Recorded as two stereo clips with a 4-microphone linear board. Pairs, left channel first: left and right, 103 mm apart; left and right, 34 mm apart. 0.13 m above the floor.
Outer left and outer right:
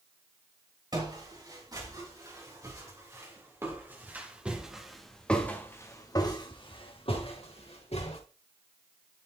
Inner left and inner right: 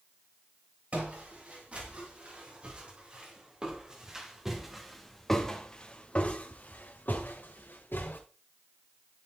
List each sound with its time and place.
0.9 s footsteps: 40° right (ahead or behind), 6.5 m; by 8.2 s 80° left, 3.5 m